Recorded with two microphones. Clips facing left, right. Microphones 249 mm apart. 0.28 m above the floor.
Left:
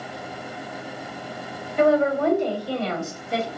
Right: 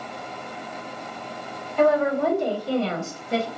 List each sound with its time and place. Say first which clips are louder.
1.8 s a woman speaking: left 1 dB; 15° left (ahead or behind), 1.2 m; by 3.5 s 45° right (ahead or behind), 1.5 m